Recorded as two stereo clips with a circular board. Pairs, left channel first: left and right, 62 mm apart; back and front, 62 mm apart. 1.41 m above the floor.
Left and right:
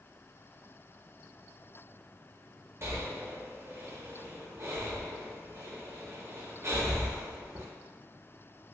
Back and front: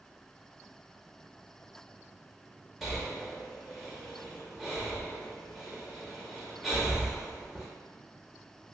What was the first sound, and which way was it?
Breathing, 85° right.